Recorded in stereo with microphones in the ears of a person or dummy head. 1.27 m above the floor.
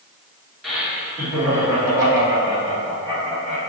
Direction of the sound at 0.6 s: Centre (ahead or behind).